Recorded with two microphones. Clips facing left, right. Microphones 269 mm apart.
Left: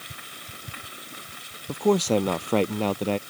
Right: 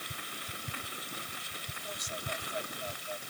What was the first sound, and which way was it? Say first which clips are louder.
A man speaking: left 27 dB; 80° left.